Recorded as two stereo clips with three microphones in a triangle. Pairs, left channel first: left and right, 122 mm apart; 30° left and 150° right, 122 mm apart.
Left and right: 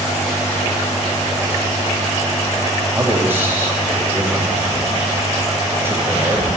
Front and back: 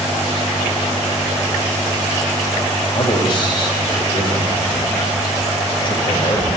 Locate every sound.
3.0 s a man speaking: 20° right, 3 m